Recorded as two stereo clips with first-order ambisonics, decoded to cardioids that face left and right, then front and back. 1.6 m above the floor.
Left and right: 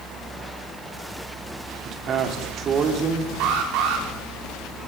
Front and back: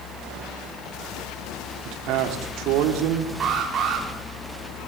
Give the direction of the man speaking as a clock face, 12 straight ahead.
5 o'clock.